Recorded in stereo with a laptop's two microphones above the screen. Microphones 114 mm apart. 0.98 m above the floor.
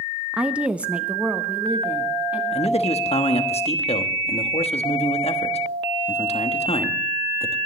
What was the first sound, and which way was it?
A woman speaking, 10° right (ahead or behind).